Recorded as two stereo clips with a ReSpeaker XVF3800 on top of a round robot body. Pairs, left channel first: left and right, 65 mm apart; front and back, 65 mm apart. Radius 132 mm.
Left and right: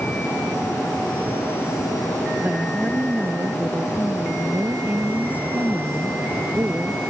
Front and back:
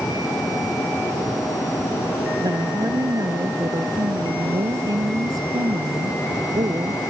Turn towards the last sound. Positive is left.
turn(degrees=-155)